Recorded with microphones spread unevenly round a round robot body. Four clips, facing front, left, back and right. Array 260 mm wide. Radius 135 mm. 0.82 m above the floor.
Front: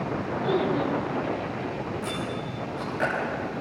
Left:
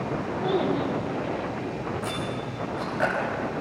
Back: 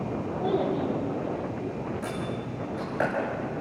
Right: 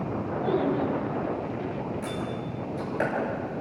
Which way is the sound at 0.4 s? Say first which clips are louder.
Even, front 1 dB; 85° right.